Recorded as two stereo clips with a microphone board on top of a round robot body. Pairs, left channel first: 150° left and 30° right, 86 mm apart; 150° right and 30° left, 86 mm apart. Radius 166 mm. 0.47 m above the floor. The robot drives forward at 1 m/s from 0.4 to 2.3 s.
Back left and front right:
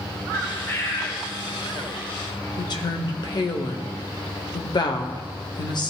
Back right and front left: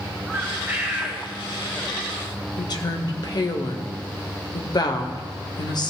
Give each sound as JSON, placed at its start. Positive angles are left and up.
{"t": 0.3, "sound": "a bird", "azimuth_deg": 90, "distance_m": 2.5}
{"t": 2.6, "sound": "a woman speaking", "azimuth_deg": 180, "distance_m": 1.9}